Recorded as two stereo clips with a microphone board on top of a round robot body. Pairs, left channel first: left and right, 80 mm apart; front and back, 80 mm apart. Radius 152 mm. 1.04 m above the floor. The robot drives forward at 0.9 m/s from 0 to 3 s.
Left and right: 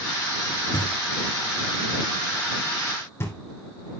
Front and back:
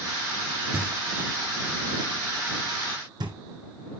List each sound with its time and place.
0.7 s knocking: 110° left, 1.6 m; by 3.4 s 150° left, 3 m